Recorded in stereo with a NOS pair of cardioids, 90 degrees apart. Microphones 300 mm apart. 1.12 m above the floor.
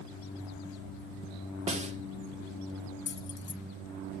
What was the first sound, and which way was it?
A snare drum, 20° right.